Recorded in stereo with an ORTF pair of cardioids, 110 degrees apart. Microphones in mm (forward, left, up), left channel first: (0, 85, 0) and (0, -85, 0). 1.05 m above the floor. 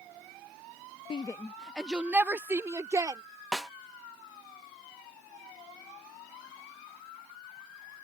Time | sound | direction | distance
1.1 | a shout | 30° left | ?
3.5 | a snare drum | straight ahead | ?